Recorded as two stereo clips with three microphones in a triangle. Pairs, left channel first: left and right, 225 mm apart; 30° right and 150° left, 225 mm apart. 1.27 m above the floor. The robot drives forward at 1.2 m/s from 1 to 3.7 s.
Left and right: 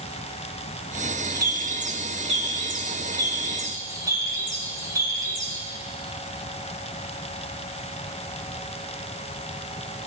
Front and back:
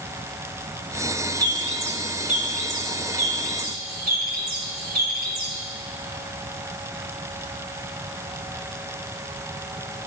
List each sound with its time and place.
1.2 s a bird: 130° right, 1.4 m; by 5.6 s 165° right, 4 m